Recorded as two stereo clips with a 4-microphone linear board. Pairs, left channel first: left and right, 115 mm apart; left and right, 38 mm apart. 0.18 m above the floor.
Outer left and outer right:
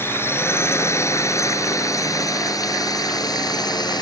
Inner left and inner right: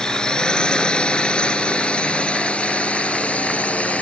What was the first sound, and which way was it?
A drone, 20° left (ahead or behind).